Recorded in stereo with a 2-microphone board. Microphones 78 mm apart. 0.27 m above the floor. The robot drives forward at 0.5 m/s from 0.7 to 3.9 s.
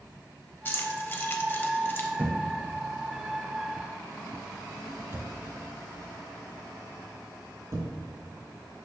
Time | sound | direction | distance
0.7 | keys jangling | 25° left (ahead or behind) | 1.1 m
2.2 | a thud | 25° right (ahead or behind) | 2.5 m